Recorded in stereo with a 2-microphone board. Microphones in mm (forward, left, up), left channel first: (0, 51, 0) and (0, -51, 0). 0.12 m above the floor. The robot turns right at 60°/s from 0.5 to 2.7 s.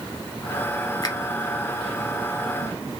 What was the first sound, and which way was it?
A finger snap, 40° left (ahead or behind).